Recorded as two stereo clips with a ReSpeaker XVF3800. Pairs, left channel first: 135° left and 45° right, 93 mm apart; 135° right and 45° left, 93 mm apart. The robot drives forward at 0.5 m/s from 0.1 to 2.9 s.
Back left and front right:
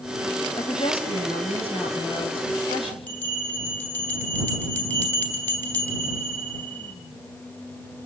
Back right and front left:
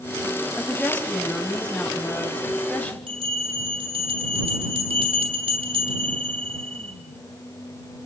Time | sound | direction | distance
0.6 | a woman speaking | 145° left | 4.5 m
3.1 | a bell | 65° left | 3 m